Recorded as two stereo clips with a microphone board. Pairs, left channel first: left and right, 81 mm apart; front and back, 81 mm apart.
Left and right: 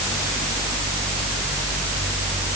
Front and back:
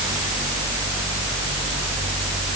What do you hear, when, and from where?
Only background noise.